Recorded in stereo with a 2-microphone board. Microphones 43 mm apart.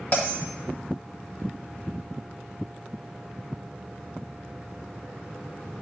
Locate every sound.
0.1 s a bell: 40° left (ahead or behind), 1.6 m